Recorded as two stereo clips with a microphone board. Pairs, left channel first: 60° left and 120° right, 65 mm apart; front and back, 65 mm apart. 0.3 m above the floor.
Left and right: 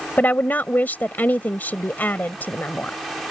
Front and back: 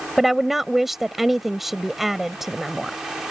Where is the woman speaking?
95° left.